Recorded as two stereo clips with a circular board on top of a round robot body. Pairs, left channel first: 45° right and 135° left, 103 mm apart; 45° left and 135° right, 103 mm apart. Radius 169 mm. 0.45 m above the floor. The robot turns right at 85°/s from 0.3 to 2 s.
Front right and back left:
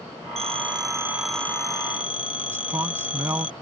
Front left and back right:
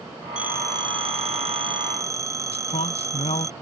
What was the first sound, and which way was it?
A phone ringing, 145° left.